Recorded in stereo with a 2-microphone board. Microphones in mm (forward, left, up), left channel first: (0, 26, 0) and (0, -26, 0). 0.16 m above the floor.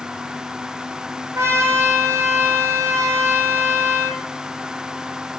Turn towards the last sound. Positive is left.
turn(degrees=-60)  # may be behind; listen again after turning